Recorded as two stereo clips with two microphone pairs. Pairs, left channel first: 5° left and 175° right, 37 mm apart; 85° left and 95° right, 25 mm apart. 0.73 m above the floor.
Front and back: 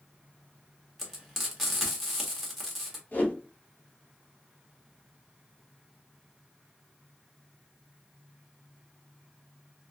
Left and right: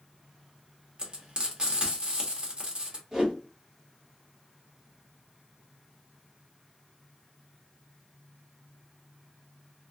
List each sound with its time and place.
1.0 s frying: 80° right, 1.3 m
3.1 s a whoosh: 25° right, 1.6 m